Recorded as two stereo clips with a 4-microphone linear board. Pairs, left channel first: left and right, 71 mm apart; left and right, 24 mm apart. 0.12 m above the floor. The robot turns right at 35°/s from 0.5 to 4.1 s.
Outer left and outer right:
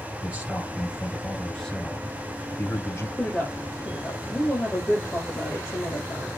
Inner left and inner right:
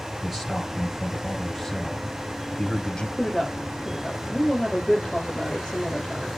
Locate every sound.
0.2 s a man speaking: 30° right, 2 m; by 3.1 s 60° left, 2 m
3.2 s a woman speaking: 10° left, 4 m; by 6.3 s 40° left, 4 m